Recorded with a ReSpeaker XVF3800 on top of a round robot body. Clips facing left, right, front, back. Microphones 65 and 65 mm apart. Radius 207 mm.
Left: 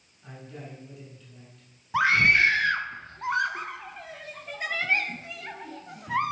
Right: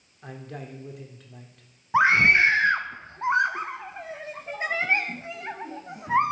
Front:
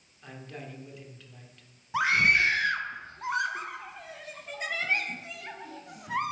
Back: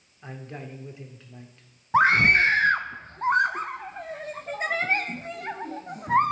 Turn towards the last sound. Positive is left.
turn(degrees=-145)